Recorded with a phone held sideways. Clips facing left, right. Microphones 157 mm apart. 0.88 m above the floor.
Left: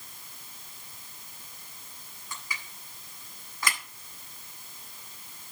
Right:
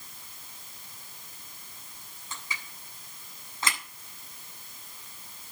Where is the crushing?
25° right (ahead or behind), 8 m.